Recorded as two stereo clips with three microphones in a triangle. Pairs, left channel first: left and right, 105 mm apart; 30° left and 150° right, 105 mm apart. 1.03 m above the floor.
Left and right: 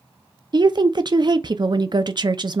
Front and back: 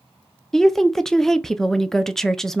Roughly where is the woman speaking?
Ahead right.